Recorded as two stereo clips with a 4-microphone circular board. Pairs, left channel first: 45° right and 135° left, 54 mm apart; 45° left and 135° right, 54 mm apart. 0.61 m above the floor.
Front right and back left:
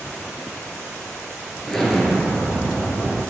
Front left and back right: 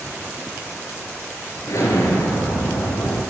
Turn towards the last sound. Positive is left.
turn(degrees=40)